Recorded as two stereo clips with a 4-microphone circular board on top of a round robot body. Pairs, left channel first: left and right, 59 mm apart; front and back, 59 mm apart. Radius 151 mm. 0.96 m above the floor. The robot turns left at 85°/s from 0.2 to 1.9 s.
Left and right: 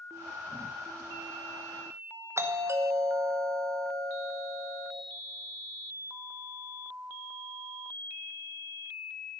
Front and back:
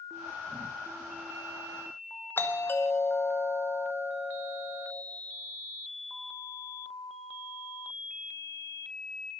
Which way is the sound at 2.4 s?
50° right.